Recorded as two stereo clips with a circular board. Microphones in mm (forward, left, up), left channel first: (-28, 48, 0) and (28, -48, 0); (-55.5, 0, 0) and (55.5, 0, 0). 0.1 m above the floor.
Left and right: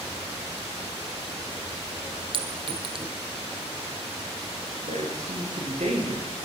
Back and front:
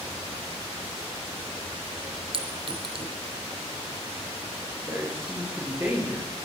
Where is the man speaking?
70° right, 10 m.